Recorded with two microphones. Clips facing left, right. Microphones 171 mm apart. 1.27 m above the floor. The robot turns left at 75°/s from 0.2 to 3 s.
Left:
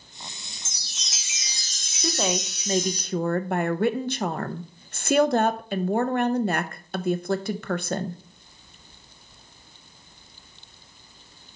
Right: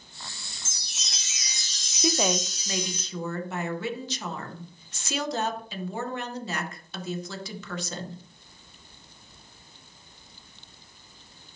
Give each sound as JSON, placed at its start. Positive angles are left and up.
{"t": 0.7, "sound": "a chime", "azimuth_deg": -150, "distance_m": 1.4}
{"t": 2.0, "sound": "a woman speaking", "azimuth_deg": -165, "distance_m": 0.7}